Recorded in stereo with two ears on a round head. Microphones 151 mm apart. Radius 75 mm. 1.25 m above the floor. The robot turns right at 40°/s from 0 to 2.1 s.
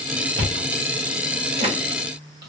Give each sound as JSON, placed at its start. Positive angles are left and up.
{"t": 0.4, "sound": "chewing", "side_deg": -70, "distance_m": 1.1}